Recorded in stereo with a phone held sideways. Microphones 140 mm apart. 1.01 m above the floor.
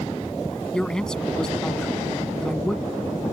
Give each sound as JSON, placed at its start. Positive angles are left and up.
{"t": 0.7, "sound": "a man speaking", "side_deg": 5}